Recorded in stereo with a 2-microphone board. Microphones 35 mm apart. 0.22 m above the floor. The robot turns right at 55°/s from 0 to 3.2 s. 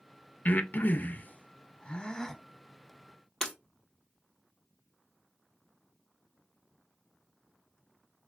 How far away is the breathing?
About 0.5 m.